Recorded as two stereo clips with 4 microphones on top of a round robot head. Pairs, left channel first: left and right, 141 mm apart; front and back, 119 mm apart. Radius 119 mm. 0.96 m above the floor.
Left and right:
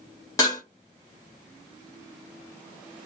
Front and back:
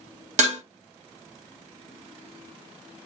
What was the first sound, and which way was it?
Dishes clattering, 160° left.